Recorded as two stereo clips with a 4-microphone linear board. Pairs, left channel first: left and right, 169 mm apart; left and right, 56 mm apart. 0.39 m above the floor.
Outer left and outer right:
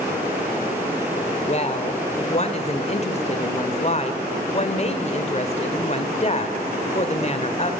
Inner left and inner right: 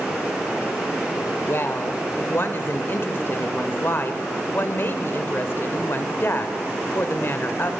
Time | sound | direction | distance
1.4 | a woman speaking | 40° left (ahead or behind) | 1.6 m